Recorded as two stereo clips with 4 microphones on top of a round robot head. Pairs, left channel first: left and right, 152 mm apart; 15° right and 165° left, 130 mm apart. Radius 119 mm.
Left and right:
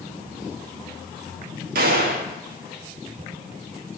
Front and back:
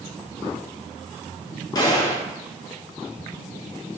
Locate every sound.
1.8 s a gunshot: 75° right, 1.3 m